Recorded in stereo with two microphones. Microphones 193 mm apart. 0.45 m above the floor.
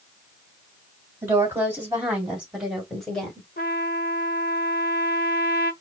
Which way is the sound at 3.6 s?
50° left (ahead or behind).